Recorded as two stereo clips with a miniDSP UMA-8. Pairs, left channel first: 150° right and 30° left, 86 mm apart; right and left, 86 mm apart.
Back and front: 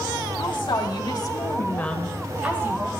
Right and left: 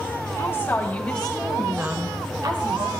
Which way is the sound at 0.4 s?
150° right.